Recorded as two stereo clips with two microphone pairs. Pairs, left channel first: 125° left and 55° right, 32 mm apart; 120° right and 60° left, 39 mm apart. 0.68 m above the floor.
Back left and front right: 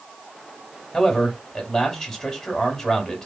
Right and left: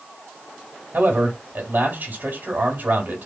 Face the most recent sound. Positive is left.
turn(degrees=70)